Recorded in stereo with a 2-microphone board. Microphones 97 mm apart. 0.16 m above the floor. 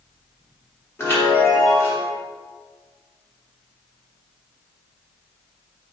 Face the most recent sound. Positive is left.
turn(degrees=25)  # may be behind; listen again after turning